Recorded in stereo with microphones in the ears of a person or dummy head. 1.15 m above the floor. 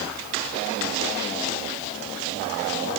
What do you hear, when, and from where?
Only background noise.